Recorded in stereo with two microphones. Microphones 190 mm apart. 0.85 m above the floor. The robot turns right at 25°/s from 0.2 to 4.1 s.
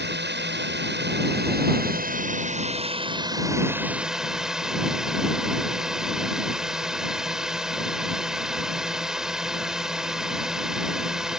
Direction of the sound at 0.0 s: 100° right.